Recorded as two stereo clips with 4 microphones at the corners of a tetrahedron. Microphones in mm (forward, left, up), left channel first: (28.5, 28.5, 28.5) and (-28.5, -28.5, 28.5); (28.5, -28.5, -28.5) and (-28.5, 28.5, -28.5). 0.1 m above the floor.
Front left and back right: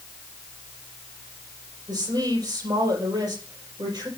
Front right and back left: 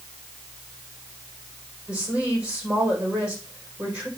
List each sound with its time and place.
1.9 s a woman speaking: 150° right, 4 m